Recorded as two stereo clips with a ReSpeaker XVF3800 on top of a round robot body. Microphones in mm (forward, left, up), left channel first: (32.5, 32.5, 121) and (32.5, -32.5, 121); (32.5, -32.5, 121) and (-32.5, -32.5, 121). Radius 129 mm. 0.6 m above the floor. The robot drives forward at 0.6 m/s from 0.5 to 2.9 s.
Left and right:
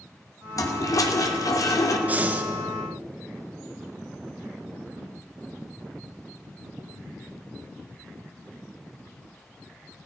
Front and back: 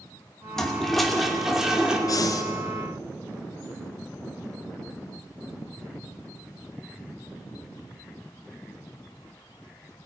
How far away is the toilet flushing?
About 2.5 m.